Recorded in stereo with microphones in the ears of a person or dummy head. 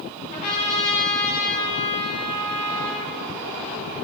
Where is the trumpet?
40° left (ahead or behind), 2.5 m.